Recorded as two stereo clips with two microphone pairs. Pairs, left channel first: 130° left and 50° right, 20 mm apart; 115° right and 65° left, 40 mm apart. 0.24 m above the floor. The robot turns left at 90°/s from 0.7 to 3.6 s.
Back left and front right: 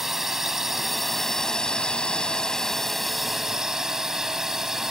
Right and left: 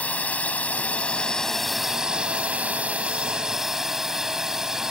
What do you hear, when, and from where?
0.0 s a drone: 120° right; by 4.9 s straight ahead